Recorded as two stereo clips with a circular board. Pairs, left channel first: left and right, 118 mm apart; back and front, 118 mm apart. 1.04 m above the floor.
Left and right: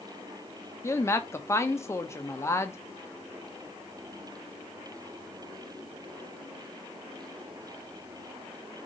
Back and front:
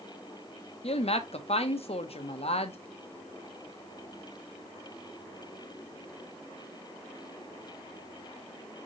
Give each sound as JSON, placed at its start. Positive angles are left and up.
{"t": 0.8, "sound": "a woman speaking", "azimuth_deg": 155, "distance_m": 0.7}